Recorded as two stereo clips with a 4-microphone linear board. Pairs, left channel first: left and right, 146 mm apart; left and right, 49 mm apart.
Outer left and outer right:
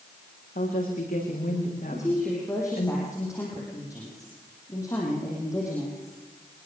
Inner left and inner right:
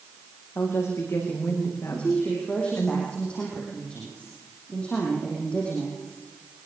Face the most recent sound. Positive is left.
turn(degrees=25)  # may be behind; listen again after turning